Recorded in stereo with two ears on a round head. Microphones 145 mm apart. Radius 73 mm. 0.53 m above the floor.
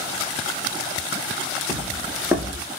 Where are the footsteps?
5° right (ahead or behind), 5 m.